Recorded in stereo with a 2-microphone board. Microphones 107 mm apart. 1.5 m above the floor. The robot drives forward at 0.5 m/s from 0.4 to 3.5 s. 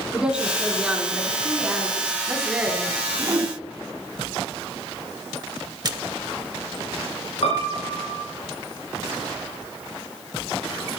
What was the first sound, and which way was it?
A woman speaking, 10° right (ahead or behind).